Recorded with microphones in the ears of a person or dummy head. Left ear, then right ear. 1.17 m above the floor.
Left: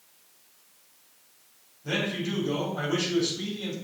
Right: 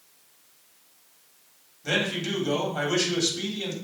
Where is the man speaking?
85° right, 3.5 m.